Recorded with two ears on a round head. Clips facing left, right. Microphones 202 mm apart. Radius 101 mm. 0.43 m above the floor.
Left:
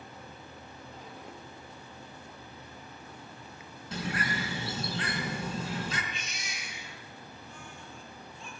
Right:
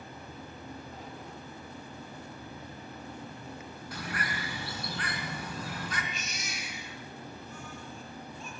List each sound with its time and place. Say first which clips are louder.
3.9 s a bird: left 5 dB; 25° left (ahead or behind), 4 m
6.1 s a baby crying: right 3 dB; 40° right (ahead or behind), 6 m